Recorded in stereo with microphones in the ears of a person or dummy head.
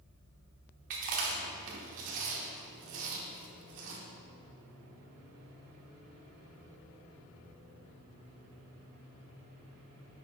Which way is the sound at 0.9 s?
45° right (ahead or behind).